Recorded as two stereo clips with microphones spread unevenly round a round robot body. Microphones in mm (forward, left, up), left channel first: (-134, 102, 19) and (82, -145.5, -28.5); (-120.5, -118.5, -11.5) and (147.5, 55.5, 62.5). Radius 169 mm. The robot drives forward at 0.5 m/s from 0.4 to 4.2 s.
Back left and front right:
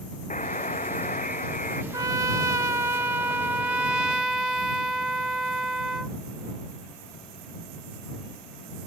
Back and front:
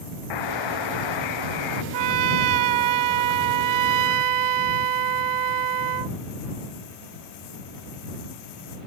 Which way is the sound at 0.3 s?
160° right.